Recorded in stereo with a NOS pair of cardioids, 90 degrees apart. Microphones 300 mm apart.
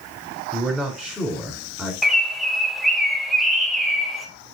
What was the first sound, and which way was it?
A man speaking, 5° right.